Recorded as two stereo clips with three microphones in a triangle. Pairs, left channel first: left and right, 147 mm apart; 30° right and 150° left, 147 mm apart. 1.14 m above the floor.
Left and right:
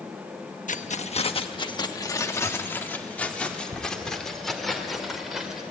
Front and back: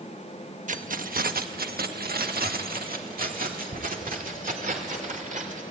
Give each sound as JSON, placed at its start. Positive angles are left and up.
{"t": 0.7, "sound": "keys jangling", "azimuth_deg": 120, "distance_m": 1.0}